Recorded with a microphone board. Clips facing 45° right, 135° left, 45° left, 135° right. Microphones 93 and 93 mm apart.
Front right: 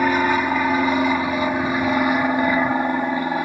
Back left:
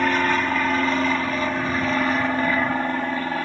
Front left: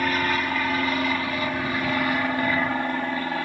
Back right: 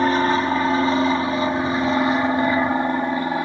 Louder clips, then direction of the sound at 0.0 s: Front right 2 dB, back right 6 dB; 110° right.